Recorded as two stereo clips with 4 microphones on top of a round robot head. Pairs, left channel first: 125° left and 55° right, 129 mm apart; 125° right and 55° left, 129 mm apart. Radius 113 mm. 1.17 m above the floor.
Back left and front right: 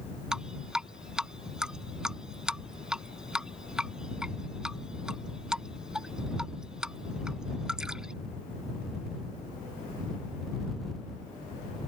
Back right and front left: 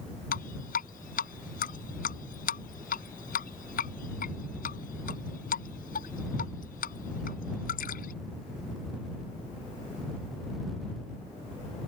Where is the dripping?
140° right.